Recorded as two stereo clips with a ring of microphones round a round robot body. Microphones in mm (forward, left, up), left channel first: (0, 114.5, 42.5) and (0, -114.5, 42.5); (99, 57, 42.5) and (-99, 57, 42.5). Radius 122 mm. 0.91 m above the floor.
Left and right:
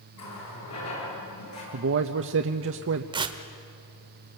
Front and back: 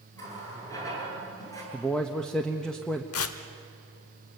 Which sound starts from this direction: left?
A running tap, at 0.1 s.